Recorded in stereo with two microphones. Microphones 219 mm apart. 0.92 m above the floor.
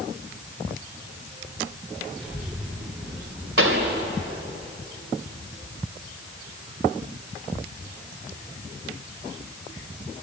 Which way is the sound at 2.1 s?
5° right (ahead or behind).